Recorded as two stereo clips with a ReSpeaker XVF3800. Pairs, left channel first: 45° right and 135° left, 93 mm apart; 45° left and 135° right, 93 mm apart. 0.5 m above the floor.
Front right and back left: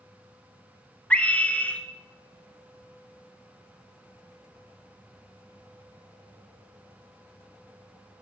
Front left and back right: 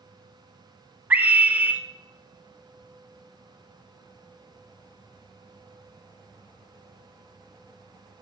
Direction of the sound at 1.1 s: 95° right.